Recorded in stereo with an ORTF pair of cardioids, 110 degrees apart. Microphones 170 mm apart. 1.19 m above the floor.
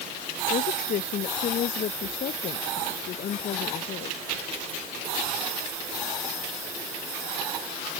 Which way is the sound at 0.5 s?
55° left.